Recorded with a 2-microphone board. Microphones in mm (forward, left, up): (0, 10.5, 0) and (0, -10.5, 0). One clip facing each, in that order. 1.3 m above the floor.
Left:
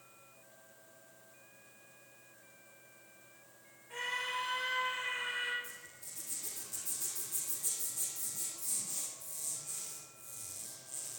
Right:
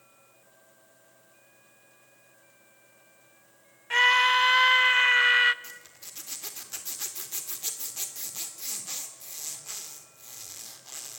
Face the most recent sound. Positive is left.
turn(degrees=-55)  # may be behind; listen again after turning